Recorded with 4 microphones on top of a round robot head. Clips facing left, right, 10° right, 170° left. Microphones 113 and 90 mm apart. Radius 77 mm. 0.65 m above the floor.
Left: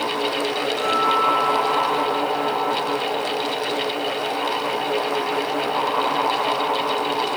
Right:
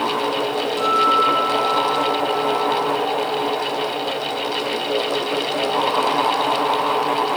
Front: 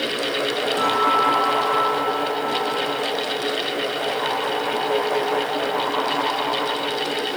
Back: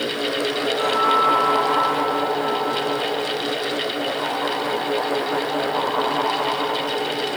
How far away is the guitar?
About 7.5 m.